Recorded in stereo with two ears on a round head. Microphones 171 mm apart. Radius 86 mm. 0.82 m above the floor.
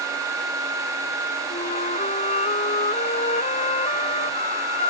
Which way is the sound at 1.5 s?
35° left (ahead or behind).